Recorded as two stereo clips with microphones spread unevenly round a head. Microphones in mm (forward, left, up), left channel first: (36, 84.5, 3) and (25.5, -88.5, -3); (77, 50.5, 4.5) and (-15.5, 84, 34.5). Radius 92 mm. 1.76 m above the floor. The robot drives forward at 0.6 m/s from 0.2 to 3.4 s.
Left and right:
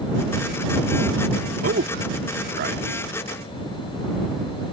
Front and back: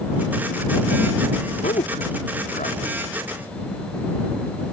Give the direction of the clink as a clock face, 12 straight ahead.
I don't hear a clink.